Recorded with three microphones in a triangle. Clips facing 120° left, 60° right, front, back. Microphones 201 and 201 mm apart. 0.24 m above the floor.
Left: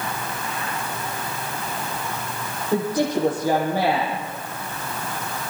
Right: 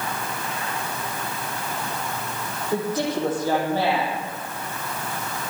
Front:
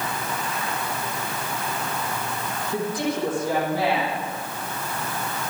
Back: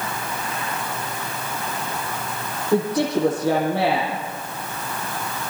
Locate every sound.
2.7 s a woman speaking: 165° right, 9.5 m